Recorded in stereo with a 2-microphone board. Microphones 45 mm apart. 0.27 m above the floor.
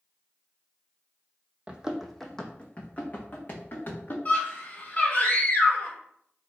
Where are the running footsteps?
25° right (ahead or behind), 0.6 m; by 4.2 s 50° left (ahead or behind), 1.7 m.